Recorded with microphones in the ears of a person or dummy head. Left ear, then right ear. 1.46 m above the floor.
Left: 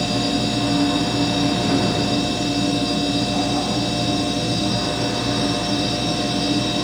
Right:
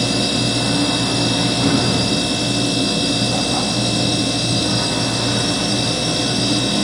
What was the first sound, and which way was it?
A machine running, 70° right (ahead or behind).